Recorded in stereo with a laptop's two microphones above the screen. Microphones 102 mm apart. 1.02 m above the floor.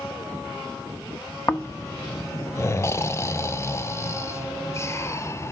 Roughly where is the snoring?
Left.